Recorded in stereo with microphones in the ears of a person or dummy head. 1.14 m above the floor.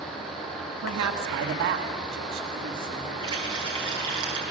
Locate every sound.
0.8 s a woman speaking: 80° right, 1.5 m; by 3.1 s 30° right (ahead or behind), 2.0 m
3.2 s a running tap: 30° right (ahead or behind), 9 m